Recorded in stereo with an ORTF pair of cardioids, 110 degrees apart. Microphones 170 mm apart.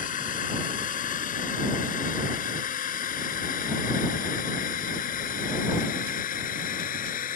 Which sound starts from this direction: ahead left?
A drone, at 0.0 s.